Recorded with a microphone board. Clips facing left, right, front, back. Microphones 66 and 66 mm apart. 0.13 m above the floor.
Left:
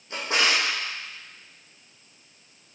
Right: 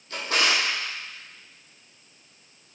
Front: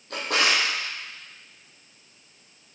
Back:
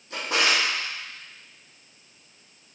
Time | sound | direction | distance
0.1 | a drawer | 20° left | 3 m